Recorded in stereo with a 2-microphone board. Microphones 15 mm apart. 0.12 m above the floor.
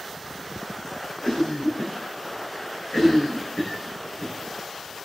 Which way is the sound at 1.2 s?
70° left (ahead or behind).